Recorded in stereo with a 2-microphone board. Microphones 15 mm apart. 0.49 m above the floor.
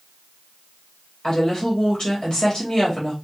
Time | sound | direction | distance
1.2 | a woman speaking | 50° left (ahead or behind) | 2.5 m